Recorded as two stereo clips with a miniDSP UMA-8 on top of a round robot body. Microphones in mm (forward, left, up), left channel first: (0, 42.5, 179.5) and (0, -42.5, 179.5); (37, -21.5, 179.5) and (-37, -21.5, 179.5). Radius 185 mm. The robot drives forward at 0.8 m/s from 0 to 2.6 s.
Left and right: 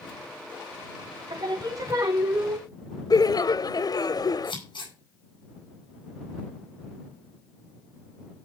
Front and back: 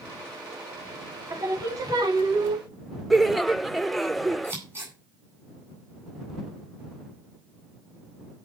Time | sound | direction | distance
1.3 | singing | 135° right | 1.6 m
3.1 | laughter | 85° left | 0.9 m
4.4 | scissors | 120° left | 9.5 m